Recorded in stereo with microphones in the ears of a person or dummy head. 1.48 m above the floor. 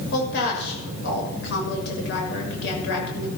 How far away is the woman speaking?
About 6.5 m.